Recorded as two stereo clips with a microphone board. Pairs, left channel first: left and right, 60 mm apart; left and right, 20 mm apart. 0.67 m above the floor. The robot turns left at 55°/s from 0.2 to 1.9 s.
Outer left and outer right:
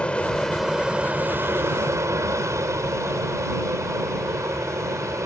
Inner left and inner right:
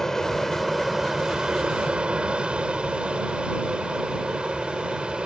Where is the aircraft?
20° left; by 5.3 s 70° right.